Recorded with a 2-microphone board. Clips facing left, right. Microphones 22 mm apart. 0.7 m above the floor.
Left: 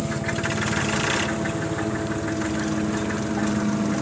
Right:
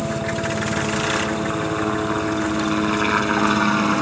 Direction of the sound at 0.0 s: 60° right (ahead or behind).